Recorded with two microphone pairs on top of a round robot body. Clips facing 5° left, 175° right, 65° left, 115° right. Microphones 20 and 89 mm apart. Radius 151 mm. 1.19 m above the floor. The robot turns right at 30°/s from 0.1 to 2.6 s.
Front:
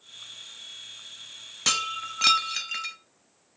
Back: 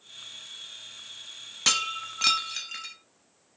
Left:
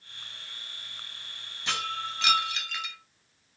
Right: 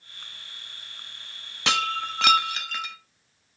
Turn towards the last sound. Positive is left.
turn(degrees=-65)